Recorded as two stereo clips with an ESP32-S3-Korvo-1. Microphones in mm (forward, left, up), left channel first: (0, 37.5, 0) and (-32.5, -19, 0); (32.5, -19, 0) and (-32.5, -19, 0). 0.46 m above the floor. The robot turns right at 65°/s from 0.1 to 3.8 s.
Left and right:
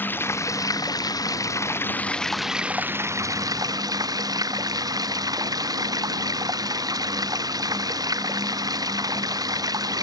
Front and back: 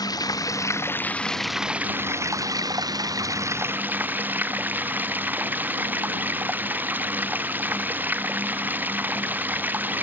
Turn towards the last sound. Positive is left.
turn(degrees=-120)